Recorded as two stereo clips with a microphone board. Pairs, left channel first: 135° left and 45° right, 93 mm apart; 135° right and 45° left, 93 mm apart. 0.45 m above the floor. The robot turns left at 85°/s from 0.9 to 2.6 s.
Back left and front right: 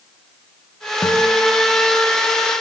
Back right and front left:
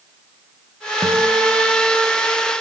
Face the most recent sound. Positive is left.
turn(degrees=-50)